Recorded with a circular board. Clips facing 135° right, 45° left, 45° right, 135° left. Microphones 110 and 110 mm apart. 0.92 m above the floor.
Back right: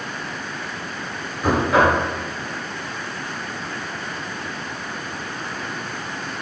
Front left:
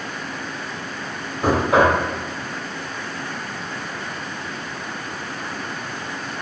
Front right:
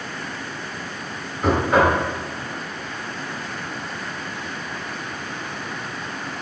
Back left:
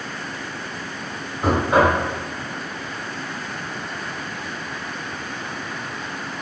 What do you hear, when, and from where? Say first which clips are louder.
1.4 s knocking: front left 1 dB, even; 50° left, 1.7 m